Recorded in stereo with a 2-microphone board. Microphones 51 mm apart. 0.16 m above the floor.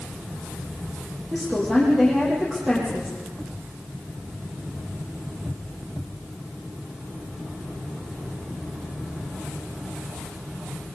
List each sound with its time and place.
1.3 s a woman speaking: 15° right (ahead or behind), 7 m